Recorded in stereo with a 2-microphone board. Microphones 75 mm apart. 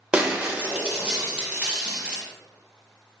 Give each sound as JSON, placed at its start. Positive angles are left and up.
{"t": 0.1, "sound": "breaking glass", "side_deg": -15, "distance_m": 0.7}